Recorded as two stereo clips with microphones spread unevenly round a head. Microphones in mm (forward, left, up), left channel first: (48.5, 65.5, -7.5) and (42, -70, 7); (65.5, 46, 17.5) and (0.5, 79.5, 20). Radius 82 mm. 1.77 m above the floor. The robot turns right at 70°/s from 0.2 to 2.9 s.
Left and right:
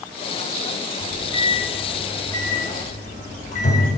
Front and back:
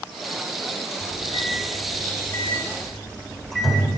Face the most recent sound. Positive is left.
turn(degrees=60)